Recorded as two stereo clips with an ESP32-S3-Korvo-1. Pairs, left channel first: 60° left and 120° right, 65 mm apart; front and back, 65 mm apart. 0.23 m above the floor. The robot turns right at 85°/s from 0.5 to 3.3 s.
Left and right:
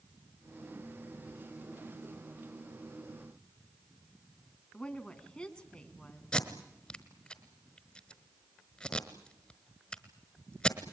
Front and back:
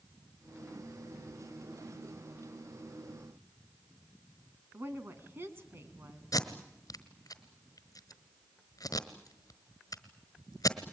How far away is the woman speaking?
About 2.5 m.